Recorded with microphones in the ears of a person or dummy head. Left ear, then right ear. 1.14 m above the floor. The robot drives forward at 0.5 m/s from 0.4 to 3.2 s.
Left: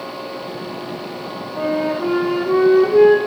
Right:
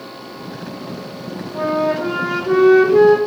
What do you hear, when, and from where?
1.5 s a flute: 25° right (ahead or behind), 4.5 m